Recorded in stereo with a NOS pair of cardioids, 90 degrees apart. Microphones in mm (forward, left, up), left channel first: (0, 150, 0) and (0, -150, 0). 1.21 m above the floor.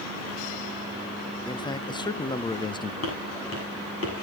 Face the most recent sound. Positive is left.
turn(degrees=45)